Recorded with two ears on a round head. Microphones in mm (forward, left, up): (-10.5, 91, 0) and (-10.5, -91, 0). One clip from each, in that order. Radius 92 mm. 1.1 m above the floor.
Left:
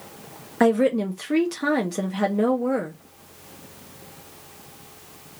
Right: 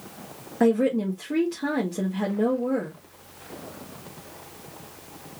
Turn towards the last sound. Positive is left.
turn(degrees=50)  # may be behind; listen again after turning